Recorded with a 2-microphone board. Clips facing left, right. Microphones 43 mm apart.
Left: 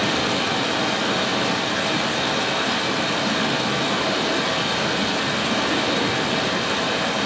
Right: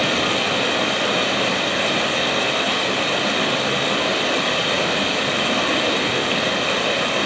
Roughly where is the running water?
Right.